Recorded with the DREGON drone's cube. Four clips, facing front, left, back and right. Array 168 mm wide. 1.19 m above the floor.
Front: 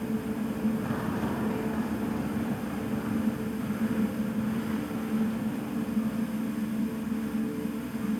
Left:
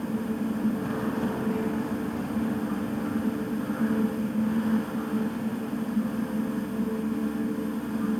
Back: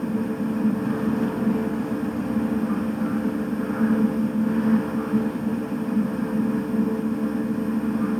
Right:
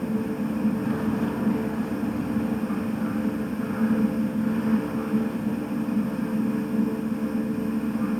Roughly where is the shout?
I don't hear a shout.